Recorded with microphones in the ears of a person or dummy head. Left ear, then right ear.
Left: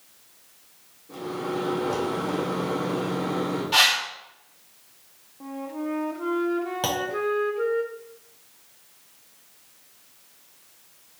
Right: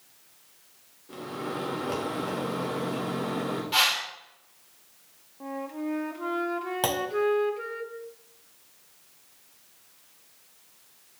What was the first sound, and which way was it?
A microwave, 45° right (ahead or behind).